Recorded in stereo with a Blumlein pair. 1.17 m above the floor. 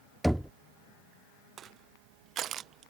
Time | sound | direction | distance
0.2 | knocking | straight ahead | ?
1.6 | crushing | 30° right | ?